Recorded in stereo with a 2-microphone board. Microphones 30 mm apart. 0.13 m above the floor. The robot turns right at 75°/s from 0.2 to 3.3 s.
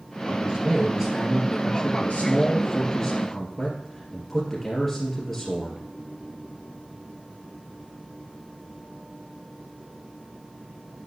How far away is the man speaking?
About 2.5 m.